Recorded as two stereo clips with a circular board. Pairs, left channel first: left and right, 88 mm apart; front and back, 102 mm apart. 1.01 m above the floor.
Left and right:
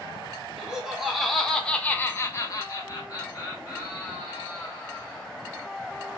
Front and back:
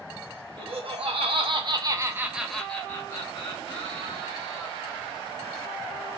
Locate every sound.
0.6 s laughter: 170° right, 1.2 m; by 5.2 s 35° left, 2.0 m